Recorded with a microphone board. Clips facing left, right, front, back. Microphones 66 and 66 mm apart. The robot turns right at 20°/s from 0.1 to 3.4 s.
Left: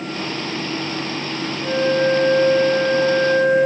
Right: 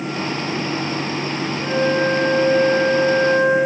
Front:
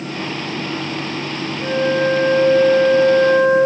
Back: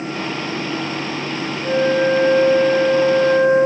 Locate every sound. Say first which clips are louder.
1.6 s a flute: left 1 dB, back 1 dB; 45° right, 8.5 m; by 3.7 s 10° right, 8.5 m